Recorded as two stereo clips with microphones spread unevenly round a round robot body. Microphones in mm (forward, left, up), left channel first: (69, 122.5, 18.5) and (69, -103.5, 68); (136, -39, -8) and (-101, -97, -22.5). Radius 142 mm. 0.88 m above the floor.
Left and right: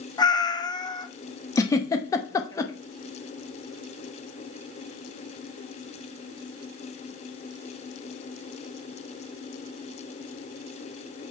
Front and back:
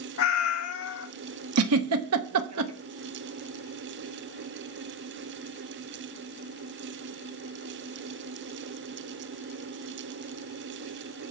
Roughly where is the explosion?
No explosion in this recording.